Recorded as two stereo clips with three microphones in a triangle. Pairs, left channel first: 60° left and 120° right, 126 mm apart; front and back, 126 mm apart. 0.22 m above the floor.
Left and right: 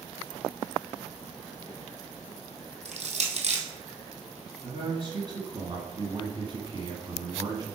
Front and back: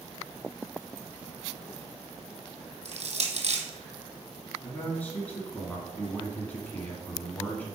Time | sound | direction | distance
2.9 | crushing | 150° right | 1.5 m
4.6 | a man speaking | 75° right | 1.9 m